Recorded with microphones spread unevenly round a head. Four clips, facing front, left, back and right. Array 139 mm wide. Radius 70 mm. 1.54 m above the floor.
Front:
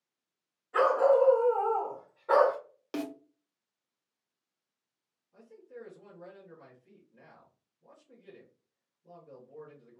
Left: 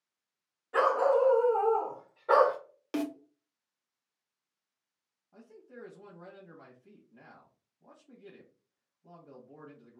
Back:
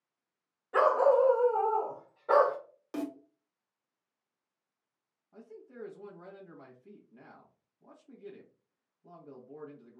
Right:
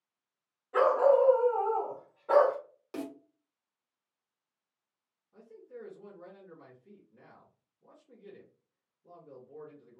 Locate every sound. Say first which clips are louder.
0.7 s a dog barking: right 2 dB, front 1 dB; 170° left, 1.6 m; by 2.6 s 80° left, 1.3 m
2.9 s a snare drum: left 6 dB, even; 50° left, 0.6 m
5.3 s a man speaking: right 2 dB, even; 135° left, 1.3 m